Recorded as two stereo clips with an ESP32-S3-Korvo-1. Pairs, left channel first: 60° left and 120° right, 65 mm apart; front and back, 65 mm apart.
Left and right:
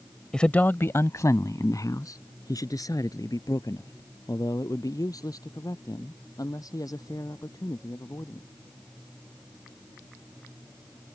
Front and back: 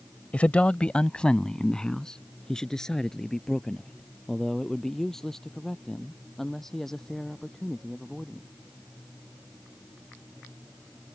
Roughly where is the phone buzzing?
I don't hear a phone buzzing.